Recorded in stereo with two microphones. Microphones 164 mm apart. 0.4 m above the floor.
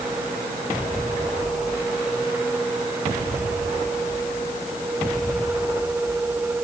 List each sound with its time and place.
Only background noise.